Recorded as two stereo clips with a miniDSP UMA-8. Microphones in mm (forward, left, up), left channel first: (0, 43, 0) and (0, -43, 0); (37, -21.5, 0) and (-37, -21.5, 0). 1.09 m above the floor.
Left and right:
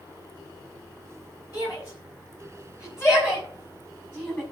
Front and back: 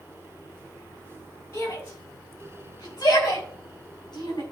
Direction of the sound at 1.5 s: 50° left.